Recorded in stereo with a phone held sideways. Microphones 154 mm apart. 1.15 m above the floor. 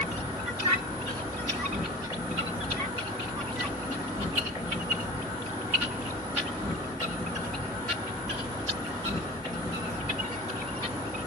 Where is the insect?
35° right (ahead or behind), 1.2 m.